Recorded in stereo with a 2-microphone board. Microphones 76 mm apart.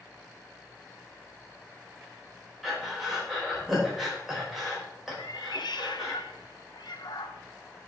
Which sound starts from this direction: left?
A cat meowing, at 5.2 s.